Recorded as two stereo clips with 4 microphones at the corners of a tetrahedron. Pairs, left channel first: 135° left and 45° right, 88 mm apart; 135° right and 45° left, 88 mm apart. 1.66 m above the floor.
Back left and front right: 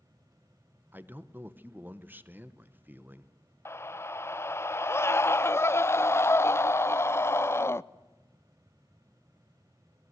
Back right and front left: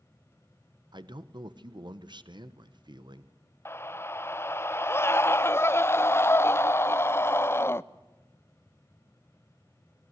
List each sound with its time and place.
0.9 s a man speaking: 20° left, 1.1 m
3.6 s a scream: straight behind, 0.5 m